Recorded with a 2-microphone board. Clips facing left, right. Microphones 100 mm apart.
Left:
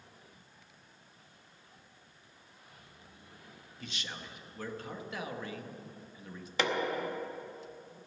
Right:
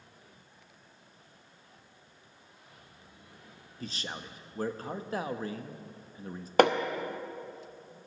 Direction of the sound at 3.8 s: 35° right (ahead or behind).